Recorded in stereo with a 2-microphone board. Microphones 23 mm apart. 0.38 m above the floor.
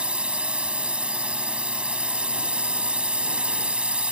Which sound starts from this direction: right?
A drone, at 0.0 s.